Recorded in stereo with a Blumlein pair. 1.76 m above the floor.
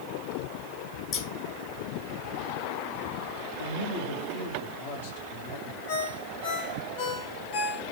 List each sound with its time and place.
1.1 s scissors: 35° left, 3 m
3.6 s a man speaking: 65° left, 2.5 m
5.9 s a ringtone: 55° left, 3 m